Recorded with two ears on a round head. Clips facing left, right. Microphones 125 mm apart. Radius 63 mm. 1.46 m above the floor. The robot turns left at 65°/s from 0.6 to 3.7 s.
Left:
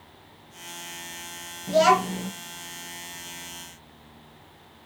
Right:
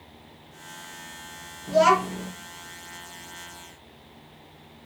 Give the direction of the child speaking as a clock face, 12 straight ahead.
7 o'clock.